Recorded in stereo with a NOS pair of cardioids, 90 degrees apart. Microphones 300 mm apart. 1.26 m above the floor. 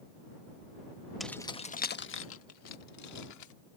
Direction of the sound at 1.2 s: Straight ahead.